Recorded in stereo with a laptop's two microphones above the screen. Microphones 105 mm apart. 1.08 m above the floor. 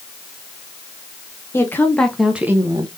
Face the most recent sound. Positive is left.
turn(degrees=-45)  # may be behind; listen again after turning